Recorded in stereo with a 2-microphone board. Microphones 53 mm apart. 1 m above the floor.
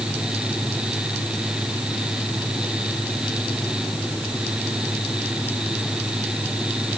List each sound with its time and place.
Only background noise.